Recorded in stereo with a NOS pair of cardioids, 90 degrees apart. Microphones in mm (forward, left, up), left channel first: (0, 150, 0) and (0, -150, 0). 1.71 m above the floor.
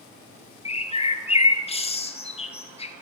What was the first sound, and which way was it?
A bird, 20° left.